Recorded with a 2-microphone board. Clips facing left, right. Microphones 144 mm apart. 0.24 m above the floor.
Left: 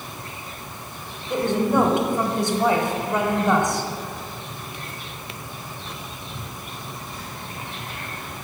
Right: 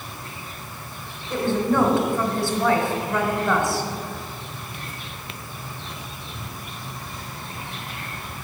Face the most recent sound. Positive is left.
turn(degrees=20)  # may be behind; listen again after turning